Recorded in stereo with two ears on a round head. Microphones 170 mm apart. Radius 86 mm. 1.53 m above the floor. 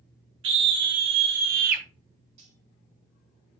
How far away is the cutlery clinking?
About 2.5 m.